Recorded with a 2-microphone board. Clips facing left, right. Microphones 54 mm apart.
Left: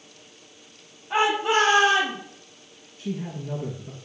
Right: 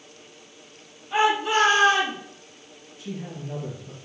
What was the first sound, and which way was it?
A shout, 30° left (ahead or behind).